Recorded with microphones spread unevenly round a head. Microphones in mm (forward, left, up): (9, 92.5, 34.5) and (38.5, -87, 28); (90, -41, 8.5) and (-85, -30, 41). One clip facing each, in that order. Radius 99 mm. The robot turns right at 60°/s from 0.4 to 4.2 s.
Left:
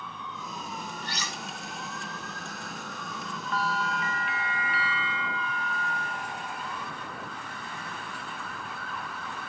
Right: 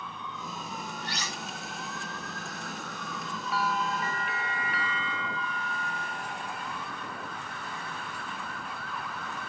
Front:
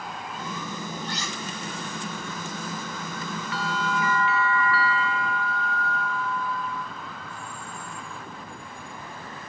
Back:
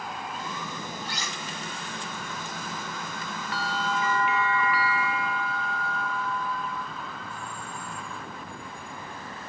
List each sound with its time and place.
1.0 s cutlery clinking: 90° left, 2.5 m; by 1.4 s 110° left, 2.5 m
3.5 s a bell: 165° right, 1.1 m; by 6.9 s 125° right, 1.1 m